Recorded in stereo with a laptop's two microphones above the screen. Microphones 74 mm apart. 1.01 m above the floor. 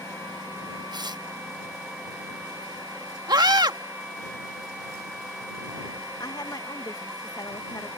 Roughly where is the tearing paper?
Right.